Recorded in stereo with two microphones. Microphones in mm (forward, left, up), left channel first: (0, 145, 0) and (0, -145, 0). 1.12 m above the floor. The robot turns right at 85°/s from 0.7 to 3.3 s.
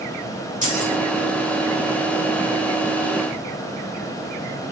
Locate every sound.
0.6 s keys jangling: 25° right (ahead or behind), 4 m; by 0.9 s 45° right (ahead or behind), 4 m